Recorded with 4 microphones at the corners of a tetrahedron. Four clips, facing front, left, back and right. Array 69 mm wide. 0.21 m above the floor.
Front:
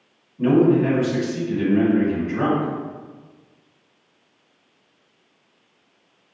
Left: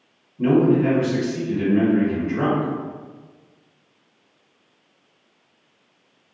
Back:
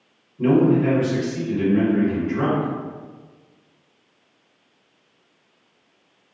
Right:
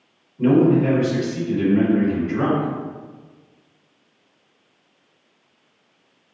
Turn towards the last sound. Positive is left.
turn(degrees=30)